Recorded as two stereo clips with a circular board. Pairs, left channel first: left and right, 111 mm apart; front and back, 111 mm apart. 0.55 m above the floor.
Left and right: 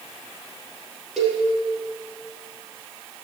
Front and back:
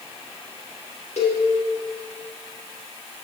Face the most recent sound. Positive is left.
turn(degrees=0)